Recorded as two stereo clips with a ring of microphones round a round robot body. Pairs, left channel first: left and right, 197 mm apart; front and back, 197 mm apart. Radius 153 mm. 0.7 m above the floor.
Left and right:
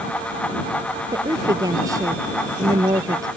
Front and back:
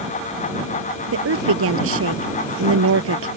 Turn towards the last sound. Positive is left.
turn(degrees=-170)